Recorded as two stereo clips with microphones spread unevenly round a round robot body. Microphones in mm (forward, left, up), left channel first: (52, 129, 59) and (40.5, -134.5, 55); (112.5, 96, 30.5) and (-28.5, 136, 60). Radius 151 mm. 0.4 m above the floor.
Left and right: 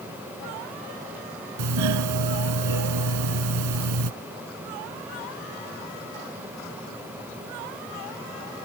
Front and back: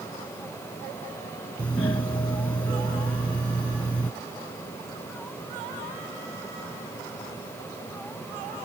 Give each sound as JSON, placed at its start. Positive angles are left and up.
{"t": 1.6, "sound": "a doorbell", "azimuth_deg": -95}